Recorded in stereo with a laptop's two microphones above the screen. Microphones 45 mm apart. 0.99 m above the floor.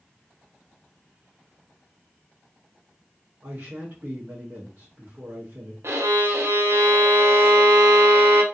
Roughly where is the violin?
Right.